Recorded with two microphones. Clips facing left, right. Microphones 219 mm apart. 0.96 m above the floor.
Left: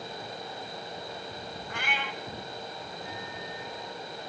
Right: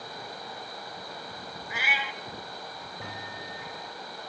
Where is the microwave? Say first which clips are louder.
Even; 75° right (ahead or behind), 5 m.